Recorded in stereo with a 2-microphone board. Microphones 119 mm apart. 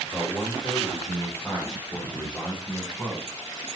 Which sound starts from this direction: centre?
A man speaking, at 0.1 s.